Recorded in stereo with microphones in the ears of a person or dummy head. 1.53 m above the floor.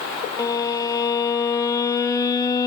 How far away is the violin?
About 0.6 m.